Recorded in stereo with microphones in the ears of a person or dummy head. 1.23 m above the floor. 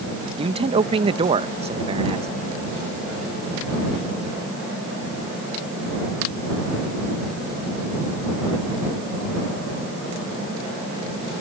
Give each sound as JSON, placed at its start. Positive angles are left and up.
{"t": 0.4, "sound": "a man speaking", "side_deg": -30}